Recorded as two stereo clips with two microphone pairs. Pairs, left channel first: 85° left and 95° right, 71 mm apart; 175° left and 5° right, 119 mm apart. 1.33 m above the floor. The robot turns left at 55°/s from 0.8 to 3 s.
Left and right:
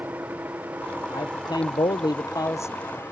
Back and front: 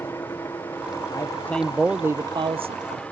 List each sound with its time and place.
0.0 s a helicopter: 135° right; by 3.1 s 100° left
1.1 s a man speaking: 120° left; by 3.0 s 15° left